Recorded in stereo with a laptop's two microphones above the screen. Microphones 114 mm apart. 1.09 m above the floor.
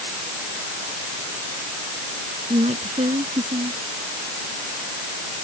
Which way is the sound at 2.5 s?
80° right.